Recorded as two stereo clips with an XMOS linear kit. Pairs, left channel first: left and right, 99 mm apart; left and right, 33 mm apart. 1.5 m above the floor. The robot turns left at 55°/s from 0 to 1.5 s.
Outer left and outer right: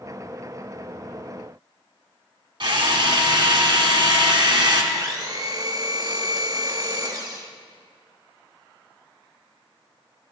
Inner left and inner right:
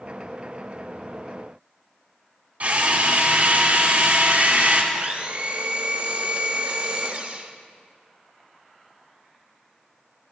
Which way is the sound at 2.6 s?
50° right (ahead or behind).